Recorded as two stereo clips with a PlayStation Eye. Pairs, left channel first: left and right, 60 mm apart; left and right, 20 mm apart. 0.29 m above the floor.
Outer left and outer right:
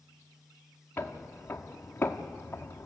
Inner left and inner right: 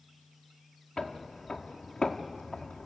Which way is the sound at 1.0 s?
30° left (ahead or behind).